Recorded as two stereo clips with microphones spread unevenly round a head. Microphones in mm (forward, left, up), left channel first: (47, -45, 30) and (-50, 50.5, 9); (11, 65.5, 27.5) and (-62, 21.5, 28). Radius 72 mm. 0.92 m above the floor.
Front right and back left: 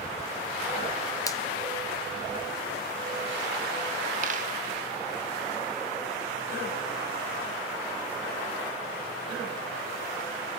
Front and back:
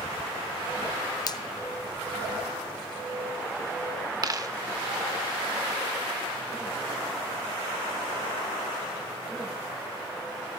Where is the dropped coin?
175° left, 0.9 m.